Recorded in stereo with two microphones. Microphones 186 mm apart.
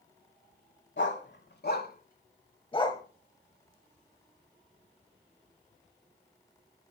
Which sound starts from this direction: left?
A dog barking, at 1.0 s.